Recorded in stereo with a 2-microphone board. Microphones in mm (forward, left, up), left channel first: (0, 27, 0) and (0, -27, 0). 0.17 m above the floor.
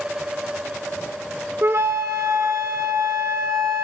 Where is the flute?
50° right (ahead or behind), 1.7 m.